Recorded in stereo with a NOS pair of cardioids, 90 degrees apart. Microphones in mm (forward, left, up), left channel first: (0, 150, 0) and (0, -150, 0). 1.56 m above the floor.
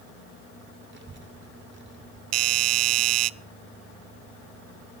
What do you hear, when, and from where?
0.9 s a child speaking: 40° right, 3.5 m
2.3 s a doorbell: 60° right, 0.5 m